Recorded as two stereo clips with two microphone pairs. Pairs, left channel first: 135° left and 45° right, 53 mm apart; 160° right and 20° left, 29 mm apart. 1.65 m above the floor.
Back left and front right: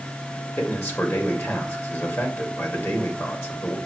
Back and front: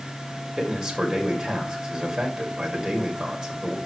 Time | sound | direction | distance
0.6 | a man speaking | 95° left | 2.5 m